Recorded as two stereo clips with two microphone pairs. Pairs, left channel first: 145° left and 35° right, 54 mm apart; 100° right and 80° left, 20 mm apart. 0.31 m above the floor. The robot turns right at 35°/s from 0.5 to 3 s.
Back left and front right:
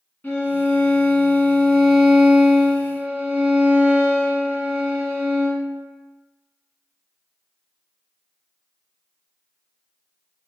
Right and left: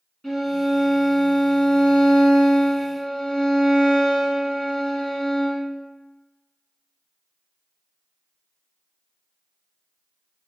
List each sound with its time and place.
0.2 s a violin: 160° right, 1.5 m; by 5.7 s 75° right, 1.5 m